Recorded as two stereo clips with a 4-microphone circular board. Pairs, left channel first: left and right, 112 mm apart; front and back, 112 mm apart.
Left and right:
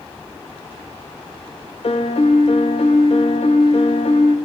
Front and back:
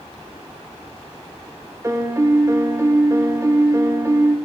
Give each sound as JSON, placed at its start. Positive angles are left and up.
{"t": 1.8, "sound": "a piano", "azimuth_deg": 115, "distance_m": 1.8}